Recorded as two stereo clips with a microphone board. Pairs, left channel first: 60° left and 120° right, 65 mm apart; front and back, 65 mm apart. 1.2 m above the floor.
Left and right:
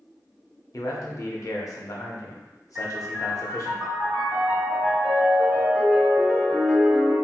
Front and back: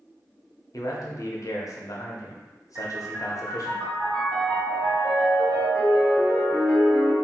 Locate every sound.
0.7 s a man speaking: 30° left, 0.6 m
2.8 s a piano: straight behind, 1.9 m